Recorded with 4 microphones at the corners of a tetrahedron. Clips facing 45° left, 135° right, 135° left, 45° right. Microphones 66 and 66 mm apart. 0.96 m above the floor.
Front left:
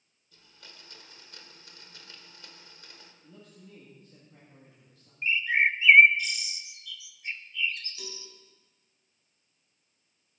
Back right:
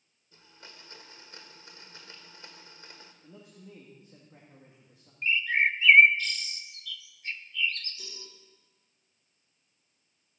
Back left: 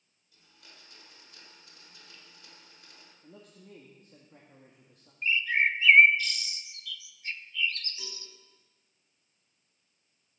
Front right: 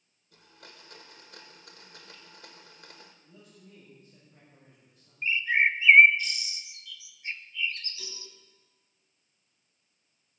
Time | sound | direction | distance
0.3 | a blender | 70° right | 1.6 m
3.2 | a man speaking | 160° left | 2.0 m
5.2 | a bird | 10° right | 0.6 m
8.0 | a cowbell | 65° left | 3.5 m